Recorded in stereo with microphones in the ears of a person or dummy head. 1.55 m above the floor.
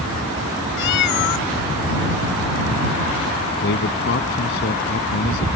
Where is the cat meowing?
65° left (ahead or behind).